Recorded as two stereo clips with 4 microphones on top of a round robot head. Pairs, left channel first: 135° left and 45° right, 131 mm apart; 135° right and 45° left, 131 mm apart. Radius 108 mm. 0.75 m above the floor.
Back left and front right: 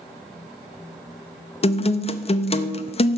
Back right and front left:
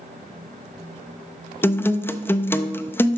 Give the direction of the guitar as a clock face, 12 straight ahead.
7 o'clock.